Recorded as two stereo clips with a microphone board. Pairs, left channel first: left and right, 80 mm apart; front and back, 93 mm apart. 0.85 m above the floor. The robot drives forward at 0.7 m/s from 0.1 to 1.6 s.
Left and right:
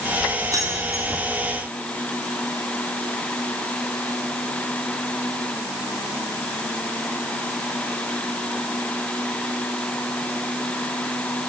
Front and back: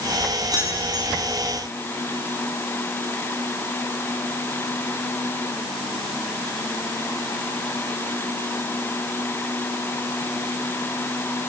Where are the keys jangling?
130° right, 7 m; by 1.1 s 135° right, 7.5 m.